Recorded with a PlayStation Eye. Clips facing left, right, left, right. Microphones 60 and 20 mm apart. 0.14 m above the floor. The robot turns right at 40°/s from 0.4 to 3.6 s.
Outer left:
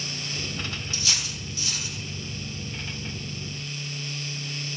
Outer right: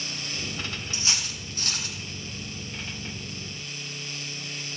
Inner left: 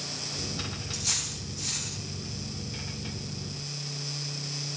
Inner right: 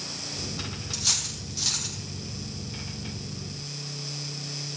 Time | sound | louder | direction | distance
0.9 | cutlery clinking | even, inner right 5 dB | 25° right (ahead or behind) | 3.5 m